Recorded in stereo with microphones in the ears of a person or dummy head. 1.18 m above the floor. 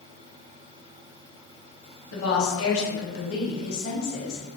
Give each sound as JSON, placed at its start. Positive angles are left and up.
{"t": 2.1, "sound": "a woman speaking", "side_deg": 75, "distance_m": 1.4}